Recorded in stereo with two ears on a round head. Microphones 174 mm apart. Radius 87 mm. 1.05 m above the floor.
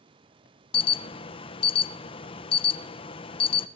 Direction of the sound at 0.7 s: 30° left (ahead or behind).